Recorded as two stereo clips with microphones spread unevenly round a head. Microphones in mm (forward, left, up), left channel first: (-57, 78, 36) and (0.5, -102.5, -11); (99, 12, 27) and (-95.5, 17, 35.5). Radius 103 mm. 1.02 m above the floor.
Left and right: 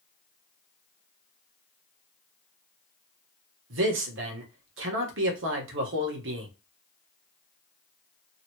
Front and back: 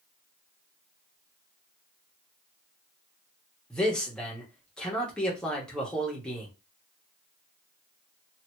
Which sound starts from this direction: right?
A man speaking, at 3.7 s.